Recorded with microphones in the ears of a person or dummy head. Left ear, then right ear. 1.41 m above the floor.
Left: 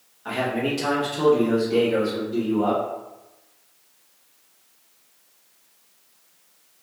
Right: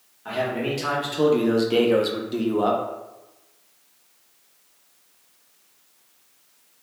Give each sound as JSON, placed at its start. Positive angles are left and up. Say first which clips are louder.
{"t": 0.2, "sound": "a man speaking", "louder": "left 1 dB", "side_deg": 0, "distance_m": 1.1}